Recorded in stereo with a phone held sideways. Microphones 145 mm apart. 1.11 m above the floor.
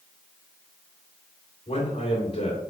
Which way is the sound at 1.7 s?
45° left (ahead or behind).